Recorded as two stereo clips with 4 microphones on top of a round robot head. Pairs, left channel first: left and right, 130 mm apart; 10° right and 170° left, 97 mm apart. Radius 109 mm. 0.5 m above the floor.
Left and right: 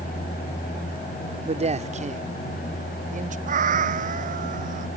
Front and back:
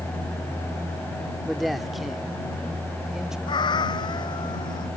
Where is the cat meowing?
60° right.